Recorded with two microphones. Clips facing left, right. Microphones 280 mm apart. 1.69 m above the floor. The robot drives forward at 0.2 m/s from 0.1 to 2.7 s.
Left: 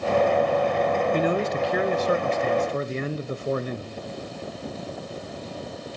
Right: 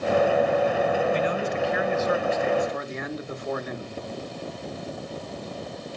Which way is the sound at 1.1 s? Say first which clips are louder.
Left 2 dB; 50° left (ahead or behind).